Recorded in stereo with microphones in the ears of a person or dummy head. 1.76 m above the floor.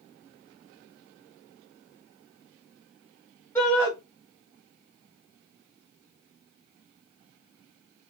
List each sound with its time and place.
3.5 s a shout: 15° left (ahead or behind), 1.5 m